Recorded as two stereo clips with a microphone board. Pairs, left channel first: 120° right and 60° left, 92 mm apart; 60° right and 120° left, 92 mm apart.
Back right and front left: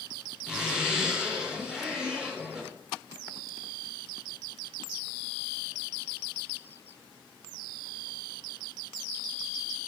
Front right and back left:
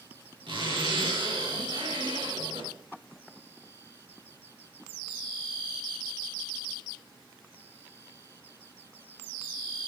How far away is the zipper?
About 6 m.